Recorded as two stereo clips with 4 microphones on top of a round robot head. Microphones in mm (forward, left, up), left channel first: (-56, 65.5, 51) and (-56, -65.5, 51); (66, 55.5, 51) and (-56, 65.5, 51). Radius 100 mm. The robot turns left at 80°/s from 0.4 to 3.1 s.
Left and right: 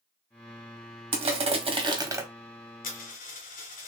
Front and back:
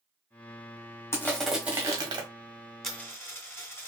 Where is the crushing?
65° right, 1.0 m; by 2.3 s 155° right, 1.0 m.